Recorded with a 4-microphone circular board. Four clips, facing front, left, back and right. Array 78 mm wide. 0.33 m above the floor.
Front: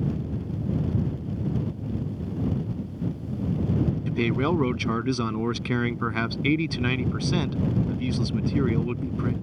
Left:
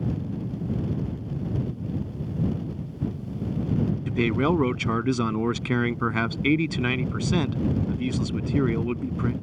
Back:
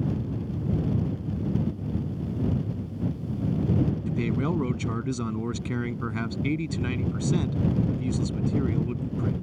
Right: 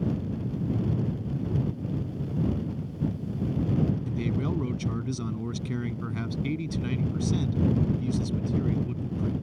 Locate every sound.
4.1 s a man speaking: 65° left